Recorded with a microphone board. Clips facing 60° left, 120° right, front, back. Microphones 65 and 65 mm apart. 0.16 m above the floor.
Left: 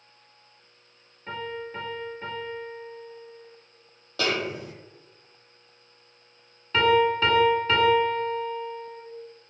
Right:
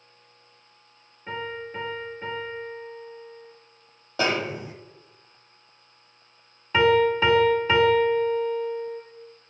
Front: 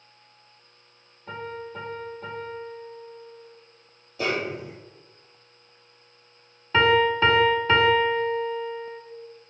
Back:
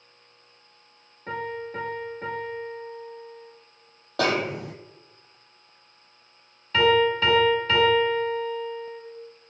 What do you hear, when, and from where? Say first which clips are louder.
1.3 s a piano: right 1 dB, back 3 dB; 155° left, 3.5 m
4.2 s a snare drum: right 2 dB, back 3 dB; 170° left, 1.0 m
6.7 s a piano: right 1 dB, even; 45° right, 1.6 m